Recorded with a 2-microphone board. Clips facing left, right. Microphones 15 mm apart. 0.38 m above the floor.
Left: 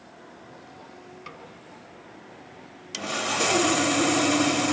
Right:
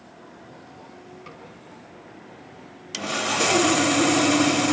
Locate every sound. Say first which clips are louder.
1.3 s a snare drum: left 2 dB; 20° left (ahead or behind), 3.5 m
2.9 s sawing: right 2 dB; 10° right (ahead or behind), 0.7 m